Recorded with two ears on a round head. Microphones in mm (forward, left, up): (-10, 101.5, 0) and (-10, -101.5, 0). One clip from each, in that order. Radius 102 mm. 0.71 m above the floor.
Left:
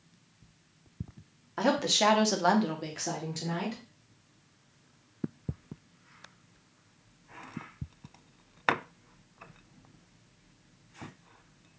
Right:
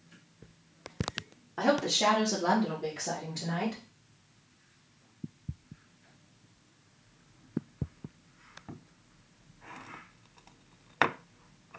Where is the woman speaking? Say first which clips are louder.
Left 1 dB; 25° left (ahead or behind), 1.1 m; by 3.8 s 35° left (ahead or behind), 1.9 m.